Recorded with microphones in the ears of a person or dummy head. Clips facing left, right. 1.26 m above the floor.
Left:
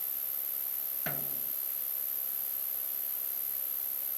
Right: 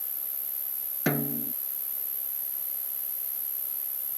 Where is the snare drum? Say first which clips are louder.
Right 15 dB; 70° right (ahead or behind).